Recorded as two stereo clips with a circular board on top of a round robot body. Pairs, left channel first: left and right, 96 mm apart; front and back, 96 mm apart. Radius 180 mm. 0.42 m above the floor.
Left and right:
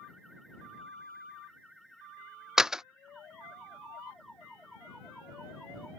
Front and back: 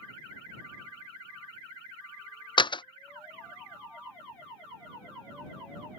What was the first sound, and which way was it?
A door slam, 10° right.